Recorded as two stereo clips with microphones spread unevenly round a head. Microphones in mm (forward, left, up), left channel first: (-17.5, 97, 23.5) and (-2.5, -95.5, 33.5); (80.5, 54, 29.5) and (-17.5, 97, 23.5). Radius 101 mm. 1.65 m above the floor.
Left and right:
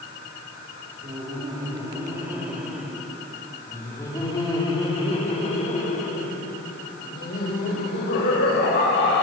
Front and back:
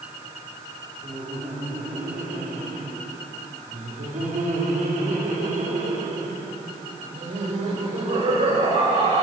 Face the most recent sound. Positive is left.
turn(degrees=130)